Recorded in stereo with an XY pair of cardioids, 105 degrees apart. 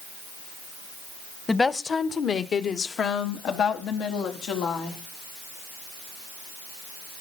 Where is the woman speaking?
20° left, 1.8 m; by 5.0 s 75° left, 5.5 m.